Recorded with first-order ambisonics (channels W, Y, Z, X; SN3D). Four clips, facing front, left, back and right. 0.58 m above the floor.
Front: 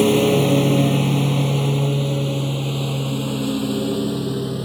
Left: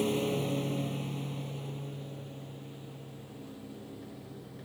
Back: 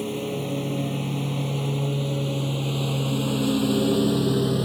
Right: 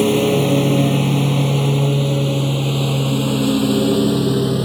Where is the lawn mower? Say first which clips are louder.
Right 15 dB, front 13 dB; 45° right; by 4.7 s 100° right.